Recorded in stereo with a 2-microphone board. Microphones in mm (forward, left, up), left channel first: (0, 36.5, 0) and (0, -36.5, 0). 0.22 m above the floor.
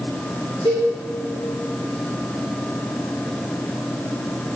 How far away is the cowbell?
About 3.5 m.